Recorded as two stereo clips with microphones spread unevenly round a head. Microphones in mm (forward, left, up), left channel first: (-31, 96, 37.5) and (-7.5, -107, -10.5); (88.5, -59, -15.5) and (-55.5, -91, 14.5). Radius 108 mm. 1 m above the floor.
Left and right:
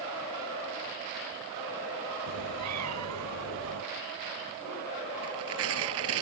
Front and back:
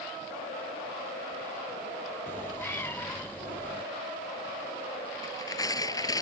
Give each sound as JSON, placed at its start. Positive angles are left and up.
{"t": 2.3, "sound": "a cat meowing", "azimuth_deg": -65}
{"t": 5.2, "sound": "tearing paper", "azimuth_deg": -55}